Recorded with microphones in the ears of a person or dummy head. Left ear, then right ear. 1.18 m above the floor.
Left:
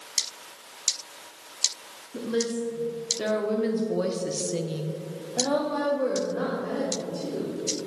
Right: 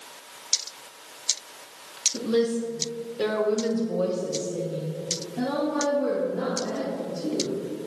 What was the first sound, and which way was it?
A woman speaking, 20° right (ahead or behind).